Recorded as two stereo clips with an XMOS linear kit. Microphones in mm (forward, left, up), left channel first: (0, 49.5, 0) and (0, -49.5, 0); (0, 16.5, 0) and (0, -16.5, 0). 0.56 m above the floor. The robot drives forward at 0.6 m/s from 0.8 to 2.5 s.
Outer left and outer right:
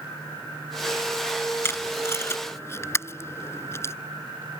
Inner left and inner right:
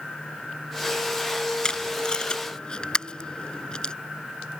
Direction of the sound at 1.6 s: 25° left (ahead or behind).